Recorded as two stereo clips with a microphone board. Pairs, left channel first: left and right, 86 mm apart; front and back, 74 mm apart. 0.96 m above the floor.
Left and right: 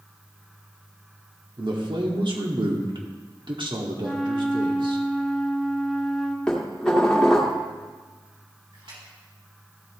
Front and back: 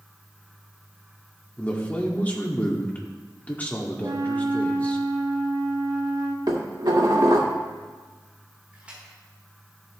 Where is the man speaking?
70° right, 1.8 m.